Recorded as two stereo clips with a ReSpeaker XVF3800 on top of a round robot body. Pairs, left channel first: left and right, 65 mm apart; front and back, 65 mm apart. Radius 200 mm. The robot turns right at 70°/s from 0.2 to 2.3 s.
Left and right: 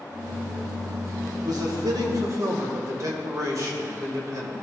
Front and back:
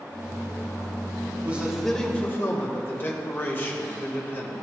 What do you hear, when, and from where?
1.4 s a man speaking: 120° right, 2.5 m; by 4.6 s 55° right, 2.5 m